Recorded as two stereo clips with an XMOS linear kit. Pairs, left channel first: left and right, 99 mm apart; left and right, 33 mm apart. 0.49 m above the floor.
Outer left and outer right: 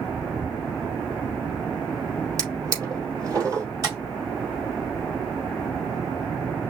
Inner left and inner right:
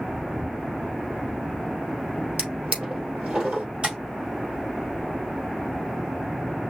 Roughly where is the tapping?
Right.